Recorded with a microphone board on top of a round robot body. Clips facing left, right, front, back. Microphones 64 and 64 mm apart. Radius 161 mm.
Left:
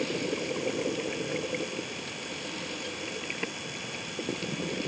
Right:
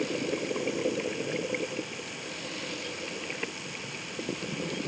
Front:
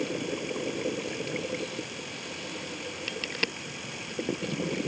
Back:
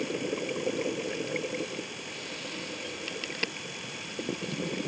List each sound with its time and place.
Only background noise.